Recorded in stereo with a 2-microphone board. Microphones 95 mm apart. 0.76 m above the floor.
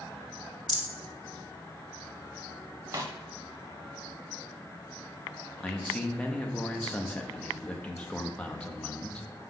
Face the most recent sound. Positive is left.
turn(degrees=10)  # may be behind; listen again after turning